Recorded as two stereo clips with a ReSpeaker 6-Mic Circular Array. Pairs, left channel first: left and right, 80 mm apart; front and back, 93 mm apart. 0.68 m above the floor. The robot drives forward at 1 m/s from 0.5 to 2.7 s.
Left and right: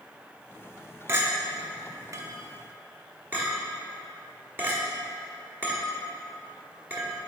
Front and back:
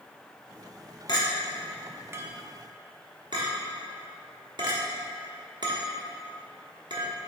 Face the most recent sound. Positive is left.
turn(degrees=-150)